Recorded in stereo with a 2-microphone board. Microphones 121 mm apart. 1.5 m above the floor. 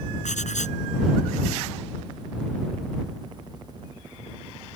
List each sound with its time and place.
0.2 s writing: 75° left (ahead or behind)